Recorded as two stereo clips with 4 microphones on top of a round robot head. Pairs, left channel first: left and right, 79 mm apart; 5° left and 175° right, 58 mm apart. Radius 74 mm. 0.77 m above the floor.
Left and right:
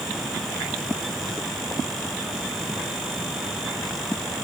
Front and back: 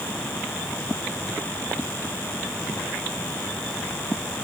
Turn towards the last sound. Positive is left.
No sound to turn to.